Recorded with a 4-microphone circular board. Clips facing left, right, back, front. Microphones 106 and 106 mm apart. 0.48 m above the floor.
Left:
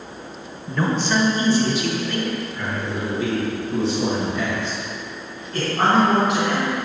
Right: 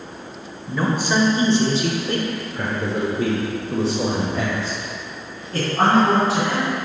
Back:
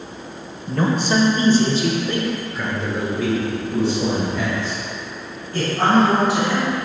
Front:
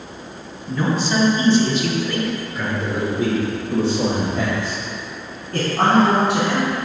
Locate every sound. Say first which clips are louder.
0.7 s a man speaking: even, back 1 dB; 170° right, 1.5 m; by 6.8 s 35° right, 3.5 m